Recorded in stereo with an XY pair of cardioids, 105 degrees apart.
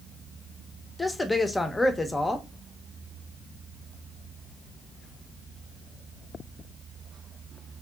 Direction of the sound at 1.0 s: 15° left.